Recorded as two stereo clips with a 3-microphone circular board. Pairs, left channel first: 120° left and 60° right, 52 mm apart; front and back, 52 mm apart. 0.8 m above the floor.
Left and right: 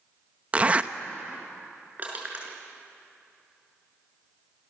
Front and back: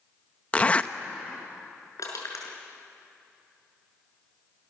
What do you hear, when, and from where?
0.5 s a zipper: 35° right, 0.8 m
2.0 s crushing: straight ahead, 5.5 m